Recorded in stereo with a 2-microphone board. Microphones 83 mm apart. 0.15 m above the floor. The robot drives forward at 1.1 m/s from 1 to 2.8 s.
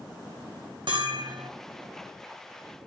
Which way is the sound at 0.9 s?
75° right (ahead or behind).